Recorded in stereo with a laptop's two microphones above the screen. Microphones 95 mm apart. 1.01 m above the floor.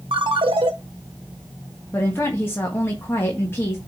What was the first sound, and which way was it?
A ringtone, 70° right (ahead or behind).